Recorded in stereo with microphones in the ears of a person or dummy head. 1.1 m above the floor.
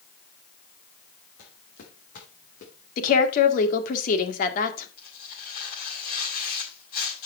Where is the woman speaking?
55° left (ahead or behind), 2 m.